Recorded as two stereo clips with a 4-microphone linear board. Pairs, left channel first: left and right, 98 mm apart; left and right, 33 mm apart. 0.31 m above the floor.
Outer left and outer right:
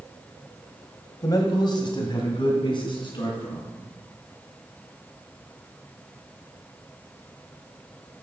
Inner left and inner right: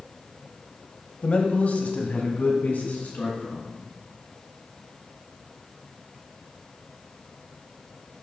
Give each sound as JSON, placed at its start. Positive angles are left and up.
{"t": 1.2, "sound": "a man speaking", "side_deg": 40, "distance_m": 1.4}